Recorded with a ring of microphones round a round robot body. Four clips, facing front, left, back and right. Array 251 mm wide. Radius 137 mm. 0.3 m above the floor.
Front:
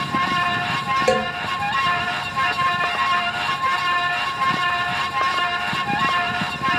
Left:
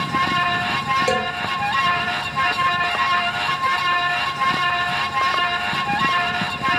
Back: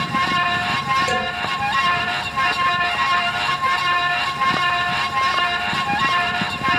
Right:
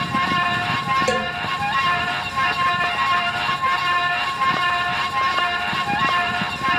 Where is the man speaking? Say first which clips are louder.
Left 1 dB, front 3 dB; 10° left, 2 m.